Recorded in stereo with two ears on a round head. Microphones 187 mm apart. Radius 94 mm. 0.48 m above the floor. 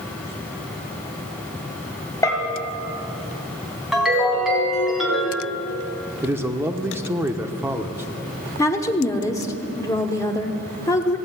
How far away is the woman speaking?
About 0.9 m.